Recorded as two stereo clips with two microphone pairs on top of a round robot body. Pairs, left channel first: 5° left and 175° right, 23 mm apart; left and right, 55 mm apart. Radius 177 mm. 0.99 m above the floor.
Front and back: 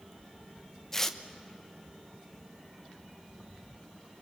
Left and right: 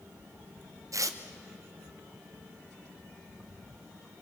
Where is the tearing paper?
70° right, 1.4 m.